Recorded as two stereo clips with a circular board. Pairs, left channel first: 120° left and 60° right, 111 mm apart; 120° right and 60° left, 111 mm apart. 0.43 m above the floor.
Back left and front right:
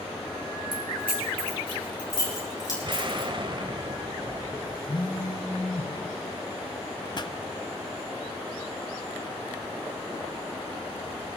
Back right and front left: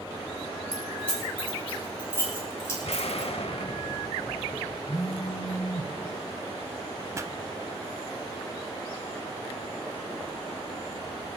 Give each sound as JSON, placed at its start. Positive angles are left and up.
{"t": 0.7, "sound": "keys jangling", "azimuth_deg": 155, "distance_m": 6.0}
{"t": 2.8, "sound": "an explosion", "azimuth_deg": -100, "distance_m": 0.7}
{"t": 4.9, "sound": "a phone buzzing", "azimuth_deg": -170, "distance_m": 1.3}
{"t": 7.2, "sound": "a pop", "azimuth_deg": 110, "distance_m": 0.6}